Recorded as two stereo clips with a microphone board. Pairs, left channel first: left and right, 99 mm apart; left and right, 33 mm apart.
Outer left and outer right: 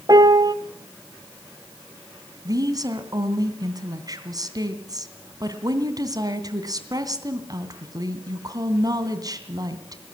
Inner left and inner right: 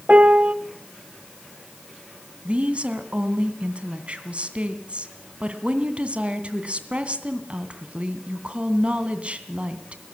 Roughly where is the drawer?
No drawer in this recording.